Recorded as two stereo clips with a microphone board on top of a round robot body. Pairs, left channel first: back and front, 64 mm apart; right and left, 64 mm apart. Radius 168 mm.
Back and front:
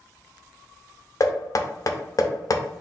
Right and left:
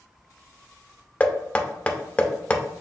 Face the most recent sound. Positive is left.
turn(degrees=-155)